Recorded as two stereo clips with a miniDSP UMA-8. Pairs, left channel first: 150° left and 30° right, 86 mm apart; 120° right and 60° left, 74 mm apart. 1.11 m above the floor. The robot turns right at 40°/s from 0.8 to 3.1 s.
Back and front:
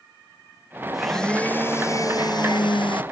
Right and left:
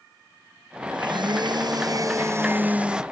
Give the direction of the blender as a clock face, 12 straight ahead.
10 o'clock.